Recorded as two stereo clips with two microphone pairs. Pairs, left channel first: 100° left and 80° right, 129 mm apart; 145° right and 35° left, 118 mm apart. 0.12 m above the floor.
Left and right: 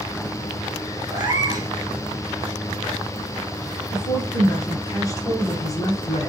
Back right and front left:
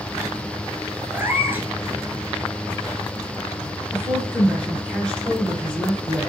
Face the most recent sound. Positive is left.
turn(degrees=140)